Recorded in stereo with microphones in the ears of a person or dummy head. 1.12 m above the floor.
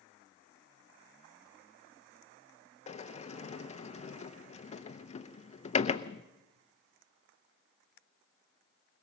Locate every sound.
2.9 s a sliding door: 30° left (ahead or behind), 0.7 m